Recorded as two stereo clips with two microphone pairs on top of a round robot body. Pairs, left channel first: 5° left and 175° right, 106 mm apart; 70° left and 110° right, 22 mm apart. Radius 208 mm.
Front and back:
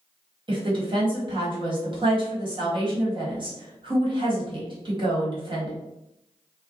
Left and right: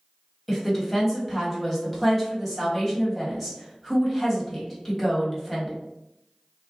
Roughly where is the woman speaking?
Behind left.